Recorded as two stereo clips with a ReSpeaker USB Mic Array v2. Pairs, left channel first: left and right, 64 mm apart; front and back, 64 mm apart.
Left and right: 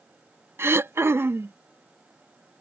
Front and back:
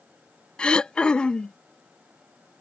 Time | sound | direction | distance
0.6 | throat clearing | 70° right | ?